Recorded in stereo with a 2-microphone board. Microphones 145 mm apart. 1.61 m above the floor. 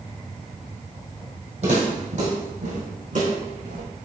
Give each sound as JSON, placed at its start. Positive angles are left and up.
{"t": 1.6, "sound": "footsteps", "side_deg": -50, "distance_m": 2.5}